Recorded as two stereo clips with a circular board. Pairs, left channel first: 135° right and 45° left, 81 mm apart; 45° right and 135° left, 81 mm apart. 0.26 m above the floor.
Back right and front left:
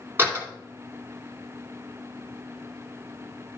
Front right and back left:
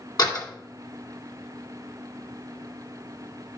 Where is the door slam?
15° right, 2 m.